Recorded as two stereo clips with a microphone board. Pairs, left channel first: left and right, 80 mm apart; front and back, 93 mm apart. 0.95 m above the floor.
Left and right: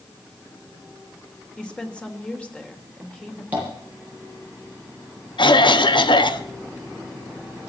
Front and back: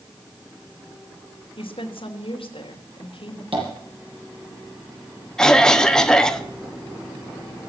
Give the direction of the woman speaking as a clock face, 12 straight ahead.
12 o'clock.